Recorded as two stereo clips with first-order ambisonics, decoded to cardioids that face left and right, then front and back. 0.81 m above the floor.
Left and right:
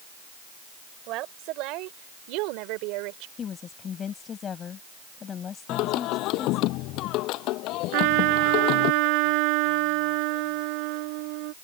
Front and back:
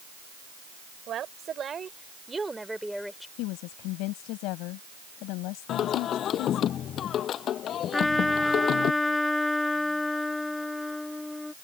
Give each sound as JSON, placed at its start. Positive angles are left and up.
{"t": 1.1, "sound": "a woman speaking", "azimuth_deg": -125}
{"t": 3.4, "sound": "a woman speaking", "azimuth_deg": 25}
{"t": 5.7, "sound": "singing", "azimuth_deg": 55}
{"t": 7.9, "sound": "a trumpet", "azimuth_deg": -80}